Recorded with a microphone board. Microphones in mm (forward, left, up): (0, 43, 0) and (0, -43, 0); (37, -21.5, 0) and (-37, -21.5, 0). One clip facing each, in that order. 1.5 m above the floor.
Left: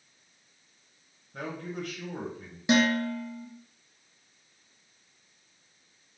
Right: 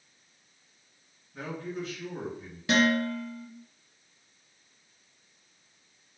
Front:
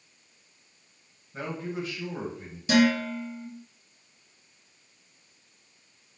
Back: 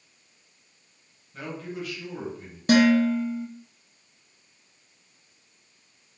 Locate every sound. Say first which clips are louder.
1.3 s a man speaking: even, front 2 dB; 60° left, 1.5 m
2.7 s dishes clattering: even, back 4 dB; 155° left, 1.1 m